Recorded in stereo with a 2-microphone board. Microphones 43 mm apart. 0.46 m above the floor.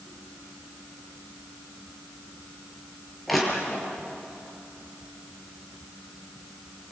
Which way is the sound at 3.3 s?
Centre (ahead or behind).